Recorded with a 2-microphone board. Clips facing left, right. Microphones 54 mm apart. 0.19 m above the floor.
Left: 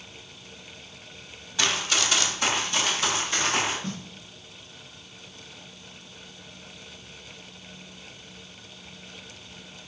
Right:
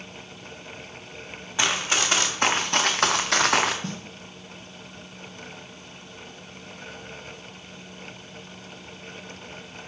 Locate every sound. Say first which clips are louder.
1.6 s running footsteps: right 2 dB; 25° right (ahead or behind), 2.5 m; by 3.7 s 85° right, 1.5 m
3.8 s a snare drum: right 1 dB; 65° right (ahead or behind), 4 m